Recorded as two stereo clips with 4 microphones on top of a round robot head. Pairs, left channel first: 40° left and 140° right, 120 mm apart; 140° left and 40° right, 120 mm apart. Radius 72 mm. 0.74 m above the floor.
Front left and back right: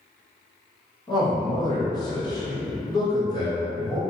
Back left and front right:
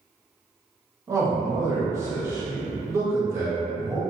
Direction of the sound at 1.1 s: 5° left.